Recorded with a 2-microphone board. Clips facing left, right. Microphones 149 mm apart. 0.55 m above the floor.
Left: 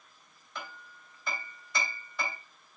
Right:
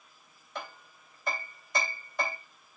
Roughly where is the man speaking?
I don't hear a man speaking.